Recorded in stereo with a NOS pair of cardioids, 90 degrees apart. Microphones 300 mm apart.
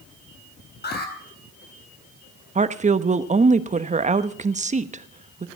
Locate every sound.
0.8 s an alarm: 35° left, 4.5 m
2.5 s a woman speaking: 25° right, 1.1 m